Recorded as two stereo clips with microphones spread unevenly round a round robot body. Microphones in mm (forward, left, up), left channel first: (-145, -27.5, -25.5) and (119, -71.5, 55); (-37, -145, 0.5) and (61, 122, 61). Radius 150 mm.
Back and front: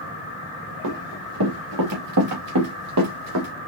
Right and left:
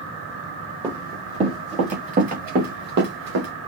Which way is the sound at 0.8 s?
5° right.